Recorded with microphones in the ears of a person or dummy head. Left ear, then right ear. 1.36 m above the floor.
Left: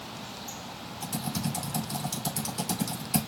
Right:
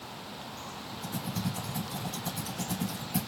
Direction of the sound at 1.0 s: 75° left (ahead or behind).